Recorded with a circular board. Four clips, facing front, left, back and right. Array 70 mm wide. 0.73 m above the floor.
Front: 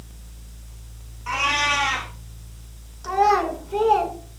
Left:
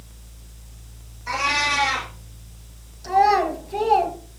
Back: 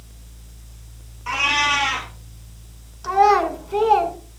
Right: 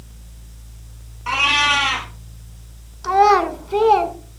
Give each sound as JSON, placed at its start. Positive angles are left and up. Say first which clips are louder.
{"t": 1.3, "sound": "a cat meowing", "louder": "right 4 dB, back 2 dB", "azimuth_deg": -95, "distance_m": 3.0}
{"t": 3.0, "sound": "a child speaking", "louder": "right 4 dB, back 3 dB", "azimuth_deg": -95, "distance_m": 2.0}